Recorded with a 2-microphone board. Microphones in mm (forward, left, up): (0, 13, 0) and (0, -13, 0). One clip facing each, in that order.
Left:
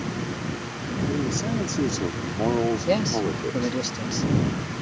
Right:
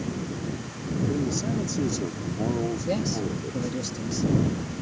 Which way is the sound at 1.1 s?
5° left (ahead or behind).